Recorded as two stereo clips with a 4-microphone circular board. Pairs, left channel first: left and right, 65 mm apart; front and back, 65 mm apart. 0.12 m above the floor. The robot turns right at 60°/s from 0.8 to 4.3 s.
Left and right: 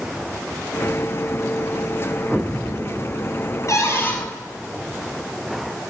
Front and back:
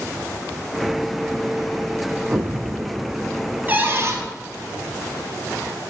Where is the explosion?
165° right, 0.6 m; by 3.6 s 90° right, 0.6 m.